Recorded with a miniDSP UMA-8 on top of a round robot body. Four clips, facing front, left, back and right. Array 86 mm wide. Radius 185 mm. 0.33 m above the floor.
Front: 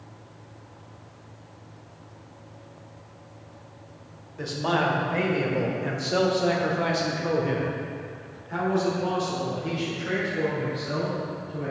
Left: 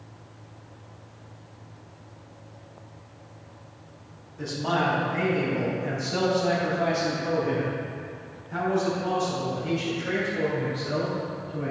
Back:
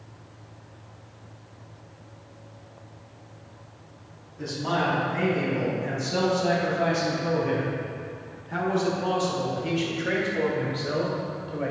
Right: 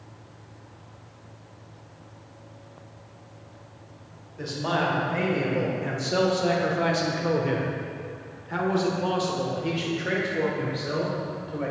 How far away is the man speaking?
About 2.5 m.